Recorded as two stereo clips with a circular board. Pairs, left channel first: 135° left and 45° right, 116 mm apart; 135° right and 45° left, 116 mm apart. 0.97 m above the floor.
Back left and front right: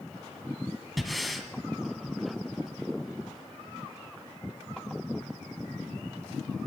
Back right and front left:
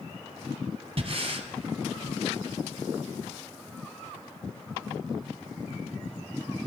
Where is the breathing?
45° left, 1.2 m.